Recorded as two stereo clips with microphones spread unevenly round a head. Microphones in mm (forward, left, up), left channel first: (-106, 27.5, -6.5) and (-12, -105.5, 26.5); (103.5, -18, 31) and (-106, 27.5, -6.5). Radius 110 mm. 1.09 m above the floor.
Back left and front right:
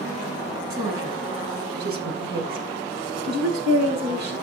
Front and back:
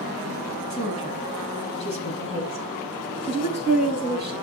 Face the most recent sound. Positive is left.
turn(degrees=-75)